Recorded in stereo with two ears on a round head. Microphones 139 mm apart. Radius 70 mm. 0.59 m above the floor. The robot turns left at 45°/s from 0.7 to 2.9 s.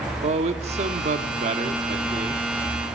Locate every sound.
0.2 s a man speaking: 65° right, 1.1 m; by 2.5 s 145° right, 1.1 m